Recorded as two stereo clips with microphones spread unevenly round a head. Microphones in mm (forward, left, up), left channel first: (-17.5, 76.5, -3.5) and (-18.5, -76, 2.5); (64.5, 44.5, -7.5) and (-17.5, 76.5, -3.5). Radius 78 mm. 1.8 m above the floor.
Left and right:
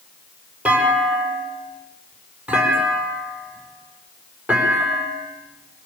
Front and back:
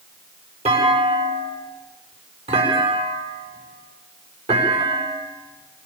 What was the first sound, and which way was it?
A clunk, 170° right.